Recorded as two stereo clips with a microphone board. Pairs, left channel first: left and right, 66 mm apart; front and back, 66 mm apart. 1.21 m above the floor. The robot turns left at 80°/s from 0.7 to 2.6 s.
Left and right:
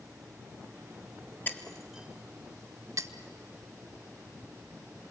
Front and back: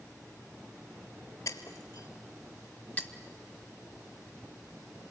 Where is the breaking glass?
30° left, 1.8 m; by 3.1 s 60° right, 1.8 m.